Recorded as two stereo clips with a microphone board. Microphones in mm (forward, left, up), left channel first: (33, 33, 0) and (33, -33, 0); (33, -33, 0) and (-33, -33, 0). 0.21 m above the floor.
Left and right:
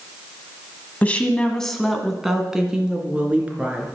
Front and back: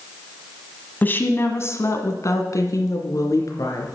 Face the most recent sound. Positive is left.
turn(degrees=-25)